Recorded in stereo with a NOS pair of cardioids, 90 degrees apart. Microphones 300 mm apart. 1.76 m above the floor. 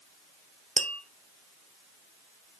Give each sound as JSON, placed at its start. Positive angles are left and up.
{"t": 0.8, "sound": "tapping", "azimuth_deg": -25, "distance_m": 1.1}